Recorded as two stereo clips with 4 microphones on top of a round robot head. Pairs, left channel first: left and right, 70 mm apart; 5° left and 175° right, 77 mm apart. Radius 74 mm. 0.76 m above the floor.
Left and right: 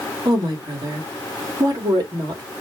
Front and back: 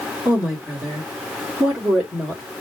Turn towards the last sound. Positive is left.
turn(degrees=-100)